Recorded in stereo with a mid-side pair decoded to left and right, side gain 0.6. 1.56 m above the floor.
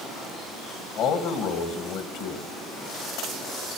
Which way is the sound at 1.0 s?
65° left.